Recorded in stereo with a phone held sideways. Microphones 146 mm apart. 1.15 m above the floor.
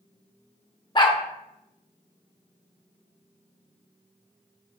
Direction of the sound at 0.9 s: 35° left (ahead or behind).